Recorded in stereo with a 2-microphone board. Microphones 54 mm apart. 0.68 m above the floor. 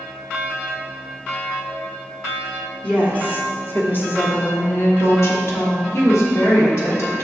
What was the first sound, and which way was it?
A woman speaking, 25° left (ahead or behind).